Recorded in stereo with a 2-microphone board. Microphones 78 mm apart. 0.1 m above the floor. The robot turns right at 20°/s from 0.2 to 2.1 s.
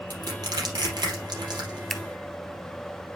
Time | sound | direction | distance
0.1 | crushing | 50° right (ahead or behind) | 3.5 m
1.9 | scissors | centre (ahead or behind) | 1.1 m